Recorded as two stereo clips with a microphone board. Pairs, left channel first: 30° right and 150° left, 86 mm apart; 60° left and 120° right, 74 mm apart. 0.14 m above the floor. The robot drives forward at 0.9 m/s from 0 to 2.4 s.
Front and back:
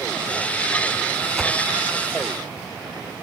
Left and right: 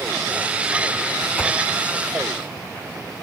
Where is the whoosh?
70° left, 0.8 m; by 1.5 s 100° left, 0.8 m.